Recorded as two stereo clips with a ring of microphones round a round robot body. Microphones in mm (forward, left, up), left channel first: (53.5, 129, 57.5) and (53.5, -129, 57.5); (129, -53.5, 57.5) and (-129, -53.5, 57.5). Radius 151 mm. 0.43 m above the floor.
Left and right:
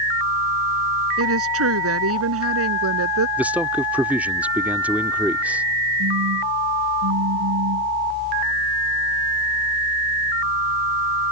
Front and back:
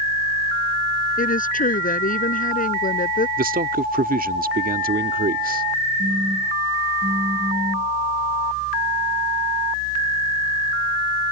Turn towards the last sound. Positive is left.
turn(degrees=-105)